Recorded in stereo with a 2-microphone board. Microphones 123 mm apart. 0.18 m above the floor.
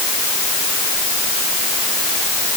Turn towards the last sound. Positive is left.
No sound to turn to.